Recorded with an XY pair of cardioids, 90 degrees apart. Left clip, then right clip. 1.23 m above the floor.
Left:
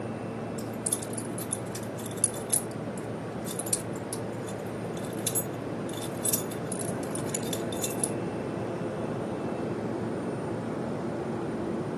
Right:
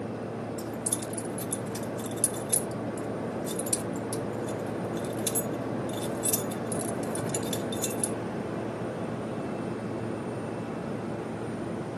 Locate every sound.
0.6 s keys jangling: 5° left, 3 m